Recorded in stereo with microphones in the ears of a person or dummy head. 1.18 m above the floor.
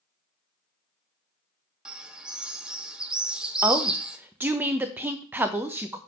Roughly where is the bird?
Centre.